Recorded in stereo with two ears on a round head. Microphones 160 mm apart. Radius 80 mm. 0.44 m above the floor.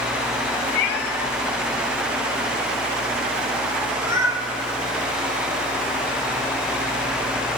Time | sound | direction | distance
0.8 | a cat meowing | 60° left (ahead or behind) | 0.9 m